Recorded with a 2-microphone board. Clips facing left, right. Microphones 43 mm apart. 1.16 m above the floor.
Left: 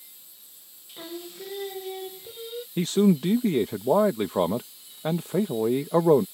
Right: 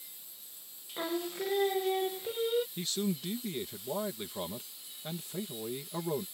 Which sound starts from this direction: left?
A man speaking, at 2.8 s.